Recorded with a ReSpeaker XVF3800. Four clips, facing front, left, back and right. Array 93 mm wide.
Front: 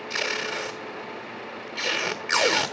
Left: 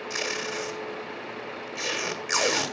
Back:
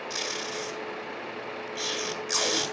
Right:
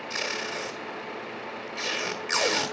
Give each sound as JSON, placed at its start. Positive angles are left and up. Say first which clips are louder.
{"t": 0.1, "sound": "tape being pulled", "louder": "left 1 dB, front 8 dB", "azimuth_deg": 15, "distance_m": 1.4}